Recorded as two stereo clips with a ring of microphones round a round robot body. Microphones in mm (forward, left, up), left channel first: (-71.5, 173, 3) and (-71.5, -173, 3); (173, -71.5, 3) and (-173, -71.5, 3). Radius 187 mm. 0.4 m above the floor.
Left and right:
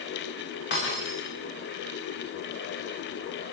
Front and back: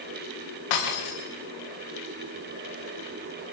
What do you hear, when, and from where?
0.7 s breaking glass: 25° left, 9 m